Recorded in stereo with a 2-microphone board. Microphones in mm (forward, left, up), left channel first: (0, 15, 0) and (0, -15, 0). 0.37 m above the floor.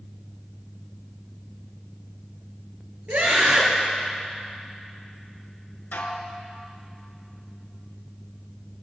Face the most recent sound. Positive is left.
turn(degrees=80)